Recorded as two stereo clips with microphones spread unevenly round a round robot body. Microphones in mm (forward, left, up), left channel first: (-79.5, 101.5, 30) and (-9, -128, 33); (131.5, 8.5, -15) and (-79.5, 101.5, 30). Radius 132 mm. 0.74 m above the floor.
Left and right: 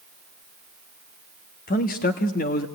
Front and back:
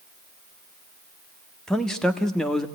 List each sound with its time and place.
1.7 s a man speaking: 55° left, 1.4 m